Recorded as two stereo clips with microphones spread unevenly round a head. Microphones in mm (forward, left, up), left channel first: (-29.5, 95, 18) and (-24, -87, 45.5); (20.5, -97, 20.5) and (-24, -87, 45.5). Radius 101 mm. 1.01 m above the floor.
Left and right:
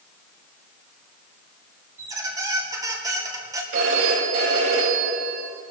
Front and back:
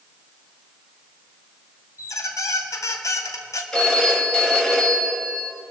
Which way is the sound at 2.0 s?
15° right.